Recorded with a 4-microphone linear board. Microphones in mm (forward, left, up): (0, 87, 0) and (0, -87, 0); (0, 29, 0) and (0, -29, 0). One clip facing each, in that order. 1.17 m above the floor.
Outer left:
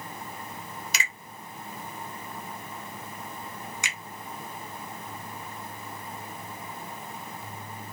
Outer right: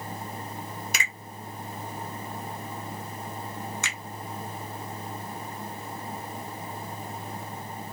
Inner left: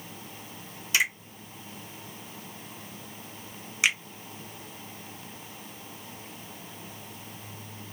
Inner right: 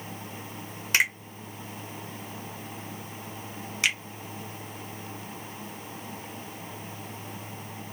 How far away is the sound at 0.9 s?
About 1.1 m.